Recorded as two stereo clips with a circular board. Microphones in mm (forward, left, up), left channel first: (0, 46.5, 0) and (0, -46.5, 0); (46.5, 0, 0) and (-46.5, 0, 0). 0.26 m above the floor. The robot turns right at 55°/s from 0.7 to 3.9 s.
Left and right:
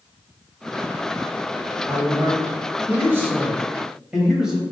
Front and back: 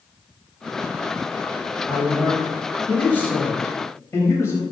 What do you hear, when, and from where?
1.9 s a man speaking: 125° right, 1.0 m; by 4.6 s 15° right, 1.0 m